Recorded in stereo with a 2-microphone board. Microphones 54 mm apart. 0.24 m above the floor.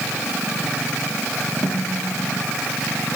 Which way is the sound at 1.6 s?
75° left (ahead or behind).